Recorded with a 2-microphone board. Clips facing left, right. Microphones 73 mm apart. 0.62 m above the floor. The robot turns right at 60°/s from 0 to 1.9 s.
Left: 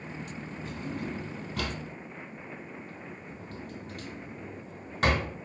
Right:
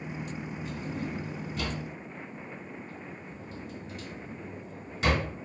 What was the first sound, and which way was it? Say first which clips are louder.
A drawer: left 1 dB; 45° left (ahead or behind).